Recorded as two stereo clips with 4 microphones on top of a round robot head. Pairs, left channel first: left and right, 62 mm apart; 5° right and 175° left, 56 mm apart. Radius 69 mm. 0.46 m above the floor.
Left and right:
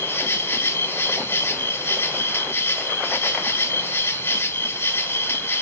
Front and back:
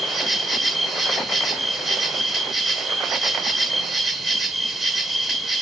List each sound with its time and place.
0.0 s an insect: 95° left, 0.8 m